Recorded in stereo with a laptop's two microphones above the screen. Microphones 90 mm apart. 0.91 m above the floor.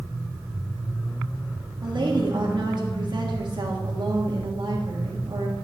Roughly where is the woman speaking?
Right.